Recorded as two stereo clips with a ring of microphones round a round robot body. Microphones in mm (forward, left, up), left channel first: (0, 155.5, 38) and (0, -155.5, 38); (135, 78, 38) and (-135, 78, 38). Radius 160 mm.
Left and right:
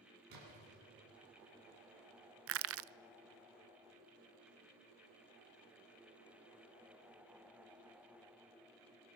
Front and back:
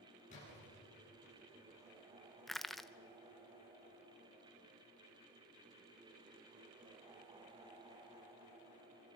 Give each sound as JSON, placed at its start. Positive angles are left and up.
{"t": 0.3, "sound": "a splash", "azimuth_deg": -70, "distance_m": 10.0}
{"t": 2.5, "sound": "crushing", "azimuth_deg": -90, "distance_m": 0.5}